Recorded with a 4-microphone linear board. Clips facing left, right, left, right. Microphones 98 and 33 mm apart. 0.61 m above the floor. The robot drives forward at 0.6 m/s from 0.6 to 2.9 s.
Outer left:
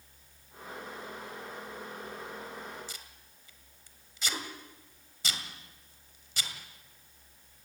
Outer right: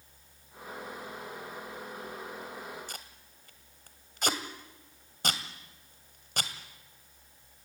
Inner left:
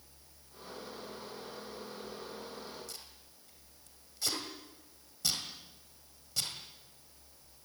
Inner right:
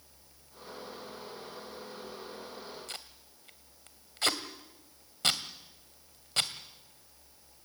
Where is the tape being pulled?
55° right (ahead or behind), 2 m.